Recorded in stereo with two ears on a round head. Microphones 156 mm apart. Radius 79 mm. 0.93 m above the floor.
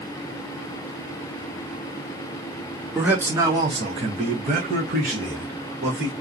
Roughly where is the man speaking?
Centre.